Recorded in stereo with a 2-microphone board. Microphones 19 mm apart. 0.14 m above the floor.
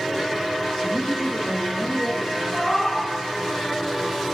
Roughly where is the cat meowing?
Centre.